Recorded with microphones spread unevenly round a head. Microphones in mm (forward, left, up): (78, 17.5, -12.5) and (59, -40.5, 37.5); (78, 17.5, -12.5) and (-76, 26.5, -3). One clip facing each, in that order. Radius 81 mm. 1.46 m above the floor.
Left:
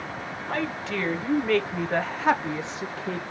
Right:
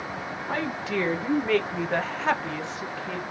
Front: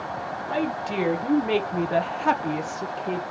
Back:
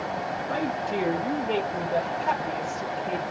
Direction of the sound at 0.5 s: 25° right.